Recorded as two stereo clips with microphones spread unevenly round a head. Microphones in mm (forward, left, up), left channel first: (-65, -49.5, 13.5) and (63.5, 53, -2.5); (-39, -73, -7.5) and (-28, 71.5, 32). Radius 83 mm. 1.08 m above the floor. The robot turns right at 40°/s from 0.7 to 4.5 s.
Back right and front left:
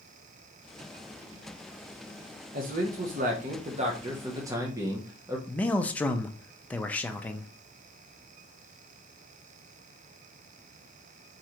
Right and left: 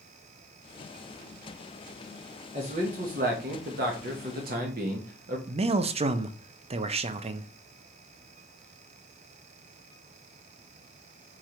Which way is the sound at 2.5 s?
25° left.